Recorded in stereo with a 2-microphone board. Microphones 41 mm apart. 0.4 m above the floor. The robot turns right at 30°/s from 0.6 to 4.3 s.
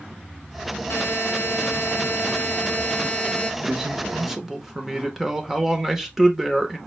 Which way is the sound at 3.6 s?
15° right (ahead or behind).